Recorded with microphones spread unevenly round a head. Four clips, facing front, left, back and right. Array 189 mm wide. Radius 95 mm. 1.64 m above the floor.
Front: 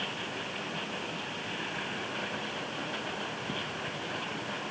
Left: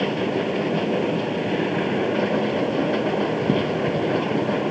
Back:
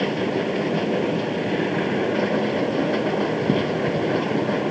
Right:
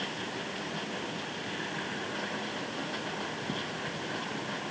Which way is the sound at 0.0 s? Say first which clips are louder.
Left 15 dB, back 16 dB; 140° left.